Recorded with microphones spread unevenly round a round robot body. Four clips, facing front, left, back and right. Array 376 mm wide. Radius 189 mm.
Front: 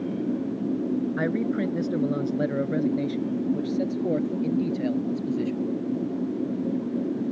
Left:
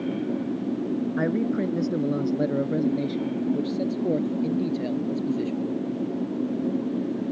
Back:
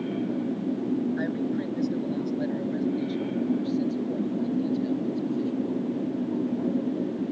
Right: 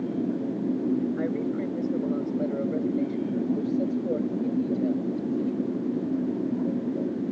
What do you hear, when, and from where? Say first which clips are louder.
1.2 s a man speaking: left 3 dB, front 3 dB; 60° left; by 5.7 s 40° left